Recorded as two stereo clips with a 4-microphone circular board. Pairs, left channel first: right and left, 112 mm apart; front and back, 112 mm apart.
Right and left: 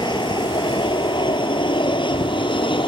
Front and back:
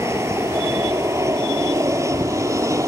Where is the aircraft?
120° right.